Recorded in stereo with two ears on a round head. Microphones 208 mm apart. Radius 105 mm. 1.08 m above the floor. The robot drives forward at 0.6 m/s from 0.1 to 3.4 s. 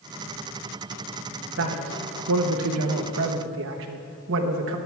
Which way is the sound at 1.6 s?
50° right (ahead or behind).